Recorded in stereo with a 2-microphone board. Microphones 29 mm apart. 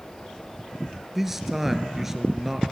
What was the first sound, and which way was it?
A man speaking, 10° right (ahead or behind).